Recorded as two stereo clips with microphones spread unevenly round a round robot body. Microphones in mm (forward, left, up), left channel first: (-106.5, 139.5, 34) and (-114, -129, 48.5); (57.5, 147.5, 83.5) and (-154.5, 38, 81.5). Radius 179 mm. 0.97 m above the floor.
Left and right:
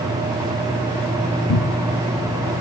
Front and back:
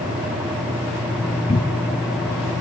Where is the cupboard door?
95° left.